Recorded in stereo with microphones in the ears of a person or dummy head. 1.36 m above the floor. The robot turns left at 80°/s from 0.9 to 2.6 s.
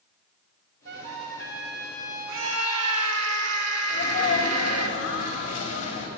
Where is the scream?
70° right (ahead or behind), 1.4 m; by 4.9 s 75° right (ahead or behind), 1.4 m.